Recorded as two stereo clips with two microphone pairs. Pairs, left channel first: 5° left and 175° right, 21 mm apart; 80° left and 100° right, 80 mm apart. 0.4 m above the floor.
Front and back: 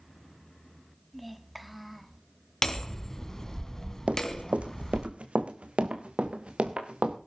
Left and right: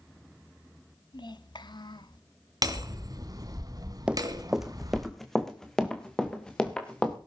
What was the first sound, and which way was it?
A child speaking, 95° left.